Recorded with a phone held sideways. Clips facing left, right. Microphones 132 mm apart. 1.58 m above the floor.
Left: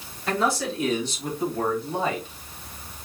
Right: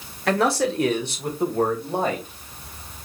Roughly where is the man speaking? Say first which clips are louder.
Right 4 dB; right.